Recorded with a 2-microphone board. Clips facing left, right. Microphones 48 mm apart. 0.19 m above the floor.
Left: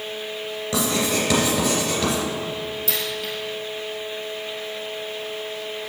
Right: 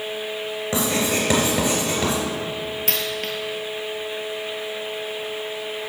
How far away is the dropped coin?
About 1.7 m.